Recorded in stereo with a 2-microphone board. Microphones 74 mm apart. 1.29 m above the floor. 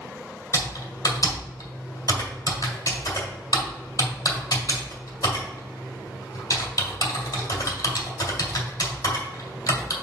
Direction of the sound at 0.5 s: 60° left (ahead or behind).